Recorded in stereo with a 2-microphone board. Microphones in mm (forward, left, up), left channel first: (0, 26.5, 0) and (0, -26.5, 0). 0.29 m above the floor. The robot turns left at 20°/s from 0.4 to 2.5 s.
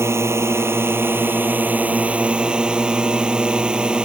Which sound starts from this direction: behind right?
A drone, at 0.0 s.